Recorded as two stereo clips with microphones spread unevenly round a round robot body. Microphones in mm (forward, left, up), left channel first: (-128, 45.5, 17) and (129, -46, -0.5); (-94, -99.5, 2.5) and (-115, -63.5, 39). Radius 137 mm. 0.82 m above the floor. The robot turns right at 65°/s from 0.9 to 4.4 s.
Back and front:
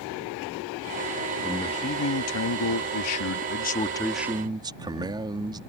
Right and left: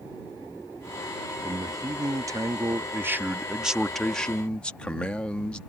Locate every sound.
1.4 s a man speaking: 75° left; by 5.6 s 90° right